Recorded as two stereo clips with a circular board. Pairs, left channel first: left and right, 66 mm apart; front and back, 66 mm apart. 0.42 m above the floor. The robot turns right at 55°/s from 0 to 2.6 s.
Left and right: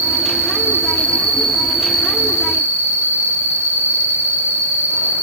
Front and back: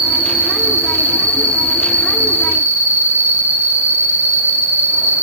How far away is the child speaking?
I don't hear a child speaking.